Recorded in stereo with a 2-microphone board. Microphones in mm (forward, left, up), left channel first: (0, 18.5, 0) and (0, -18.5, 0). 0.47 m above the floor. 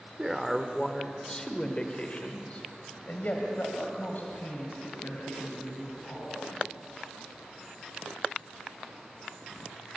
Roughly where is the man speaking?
Centre.